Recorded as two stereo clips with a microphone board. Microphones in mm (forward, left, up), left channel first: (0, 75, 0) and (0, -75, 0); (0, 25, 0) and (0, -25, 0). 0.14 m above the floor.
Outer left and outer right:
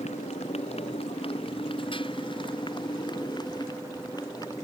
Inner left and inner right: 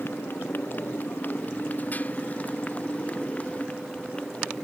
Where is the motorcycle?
45° left (ahead or behind); by 4.6 s 25° left (ahead or behind).